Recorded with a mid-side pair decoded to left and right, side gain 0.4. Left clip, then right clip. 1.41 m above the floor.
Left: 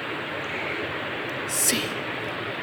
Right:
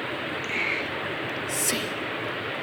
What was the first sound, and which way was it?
Whispering, 30° left.